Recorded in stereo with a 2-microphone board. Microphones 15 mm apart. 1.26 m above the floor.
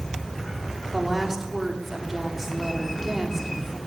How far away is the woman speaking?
About 3.5 m.